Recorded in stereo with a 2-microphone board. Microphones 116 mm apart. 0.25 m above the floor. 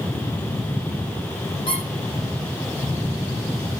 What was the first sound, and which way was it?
A squeak, 50° left (ahead or behind).